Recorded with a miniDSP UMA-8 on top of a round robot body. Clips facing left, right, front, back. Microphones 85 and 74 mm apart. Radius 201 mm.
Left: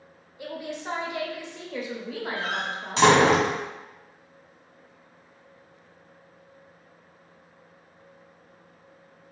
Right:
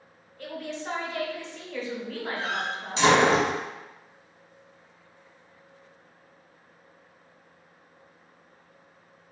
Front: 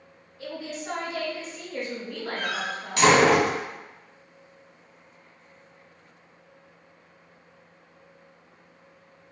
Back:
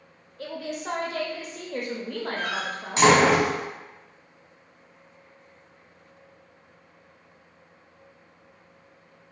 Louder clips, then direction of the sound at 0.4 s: Left 1 dB, back 2 dB; 165° left.